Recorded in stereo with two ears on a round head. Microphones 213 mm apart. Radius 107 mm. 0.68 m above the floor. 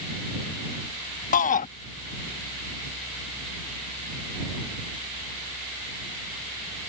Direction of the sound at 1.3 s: 35° left (ahead or behind).